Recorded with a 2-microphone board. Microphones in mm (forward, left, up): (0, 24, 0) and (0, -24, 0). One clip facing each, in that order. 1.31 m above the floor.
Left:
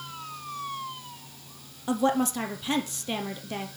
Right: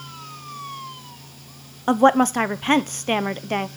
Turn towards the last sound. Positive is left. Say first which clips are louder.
# right 9 dB
turn(degrees=-50)  # may be behind; listen again after turning